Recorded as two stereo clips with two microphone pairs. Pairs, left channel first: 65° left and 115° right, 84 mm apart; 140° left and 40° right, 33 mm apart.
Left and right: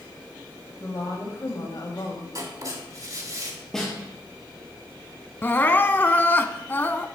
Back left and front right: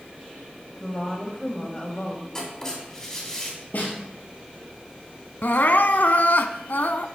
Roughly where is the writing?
Behind right.